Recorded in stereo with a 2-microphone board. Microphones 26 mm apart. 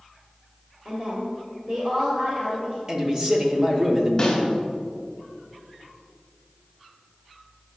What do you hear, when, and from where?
0.8 s a woman speaking: 30° right (ahead or behind), 1.3 m
2.9 s a man speaking: 20° right (ahead or behind), 0.8 m
4.2 s a snare drum: 20° left (ahead or behind), 1.7 m